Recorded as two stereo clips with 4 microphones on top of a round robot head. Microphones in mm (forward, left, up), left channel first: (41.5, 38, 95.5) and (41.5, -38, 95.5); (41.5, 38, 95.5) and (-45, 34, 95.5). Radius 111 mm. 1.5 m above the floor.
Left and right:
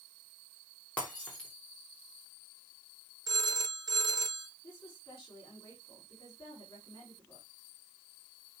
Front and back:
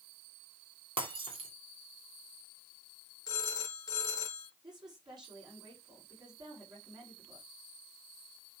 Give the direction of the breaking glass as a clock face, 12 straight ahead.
6 o'clock.